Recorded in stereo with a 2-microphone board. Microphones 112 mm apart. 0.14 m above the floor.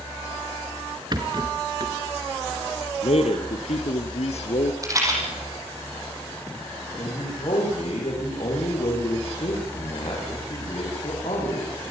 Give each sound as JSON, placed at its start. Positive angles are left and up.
{"t": 1.1, "sound": "a rattle", "side_deg": -40, "distance_m": 2.5}
{"t": 3.0, "sound": "a man speaking", "side_deg": 70, "distance_m": 3.0}
{"t": 4.8, "sound": "a rattle", "side_deg": -30, "distance_m": 7.5}
{"t": 7.0, "sound": "a man speaking", "side_deg": 55, "distance_m": 10.0}